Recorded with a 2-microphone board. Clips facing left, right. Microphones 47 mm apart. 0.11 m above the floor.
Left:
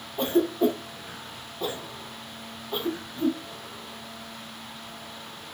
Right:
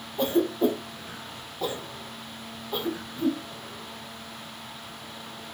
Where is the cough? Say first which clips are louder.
Left 1 dB; 20° left (ahead or behind), 1.3 m.